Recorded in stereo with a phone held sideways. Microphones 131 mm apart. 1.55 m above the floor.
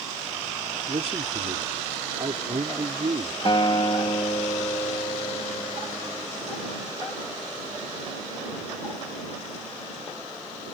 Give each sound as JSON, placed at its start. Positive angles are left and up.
{"t": 0.9, "sound": "a man speaking", "side_deg": -50}
{"t": 3.5, "sound": "a guitar", "side_deg": 40}